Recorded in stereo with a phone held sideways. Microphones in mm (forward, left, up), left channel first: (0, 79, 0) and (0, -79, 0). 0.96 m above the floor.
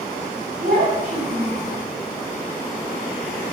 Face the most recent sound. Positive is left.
turn(degrees=-85)